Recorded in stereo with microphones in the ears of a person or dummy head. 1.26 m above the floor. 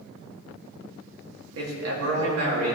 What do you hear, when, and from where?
1.6 s a man speaking: 80° right, 2.5 m